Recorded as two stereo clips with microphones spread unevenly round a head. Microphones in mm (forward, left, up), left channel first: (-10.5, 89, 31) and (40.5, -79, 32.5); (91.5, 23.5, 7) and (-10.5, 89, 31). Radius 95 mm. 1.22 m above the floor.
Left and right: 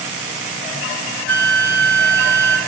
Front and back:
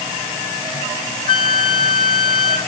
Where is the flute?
150° left, 2.5 m.